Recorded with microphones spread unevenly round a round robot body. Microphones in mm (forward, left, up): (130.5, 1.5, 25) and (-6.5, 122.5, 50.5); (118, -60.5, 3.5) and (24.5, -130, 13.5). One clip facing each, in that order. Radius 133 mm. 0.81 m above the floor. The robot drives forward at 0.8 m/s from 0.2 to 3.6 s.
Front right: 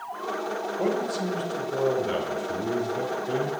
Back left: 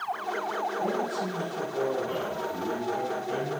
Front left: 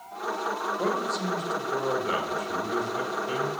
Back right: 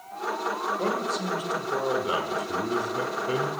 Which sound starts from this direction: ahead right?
A man speaking, at 0.8 s.